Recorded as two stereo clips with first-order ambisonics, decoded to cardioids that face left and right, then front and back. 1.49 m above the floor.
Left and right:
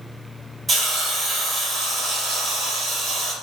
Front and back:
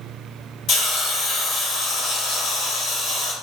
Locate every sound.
0.7 s a hiss: 25° right, 1.0 m